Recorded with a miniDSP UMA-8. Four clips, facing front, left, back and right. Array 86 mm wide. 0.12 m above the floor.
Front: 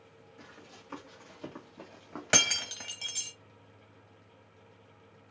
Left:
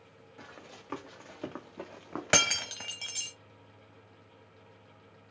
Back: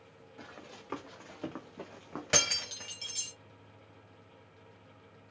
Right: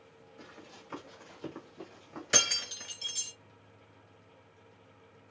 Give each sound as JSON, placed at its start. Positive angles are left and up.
{"t": 0.4, "sound": "running footsteps", "azimuth_deg": 135, "distance_m": 1.8}
{"t": 2.3, "sound": "breaking glass", "azimuth_deg": 70, "distance_m": 0.9}